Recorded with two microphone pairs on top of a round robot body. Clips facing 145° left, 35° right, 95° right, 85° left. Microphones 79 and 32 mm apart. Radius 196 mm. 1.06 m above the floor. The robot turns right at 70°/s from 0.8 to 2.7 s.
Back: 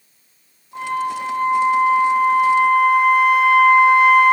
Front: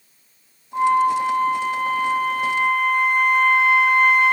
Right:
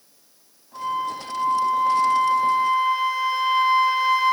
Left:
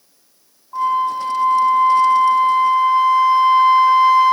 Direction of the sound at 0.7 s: 45° left.